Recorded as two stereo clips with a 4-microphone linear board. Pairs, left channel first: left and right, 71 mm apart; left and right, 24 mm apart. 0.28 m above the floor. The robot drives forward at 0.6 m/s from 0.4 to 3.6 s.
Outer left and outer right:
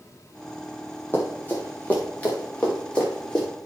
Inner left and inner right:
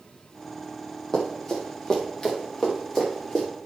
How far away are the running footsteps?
About 5 m.